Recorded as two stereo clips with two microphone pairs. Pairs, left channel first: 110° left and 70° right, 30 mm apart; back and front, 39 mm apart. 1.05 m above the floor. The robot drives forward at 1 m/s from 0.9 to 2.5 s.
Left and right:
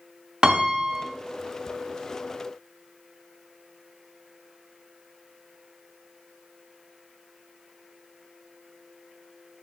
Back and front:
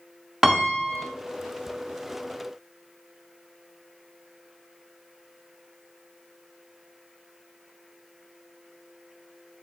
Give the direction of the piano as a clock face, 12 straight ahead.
2 o'clock.